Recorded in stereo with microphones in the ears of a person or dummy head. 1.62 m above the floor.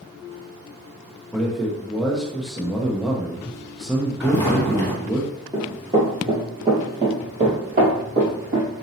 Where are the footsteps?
20° left (ahead or behind), 1.7 m.